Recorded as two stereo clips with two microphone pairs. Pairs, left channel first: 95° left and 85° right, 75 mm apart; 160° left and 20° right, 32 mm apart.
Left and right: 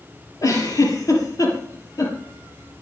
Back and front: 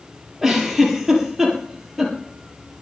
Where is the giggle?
60° left, 4 m.